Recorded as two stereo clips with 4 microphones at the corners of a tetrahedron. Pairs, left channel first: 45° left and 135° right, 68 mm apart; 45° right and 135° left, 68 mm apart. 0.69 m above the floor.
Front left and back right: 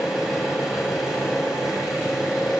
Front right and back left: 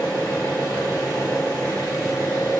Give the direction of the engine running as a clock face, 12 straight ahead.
2 o'clock.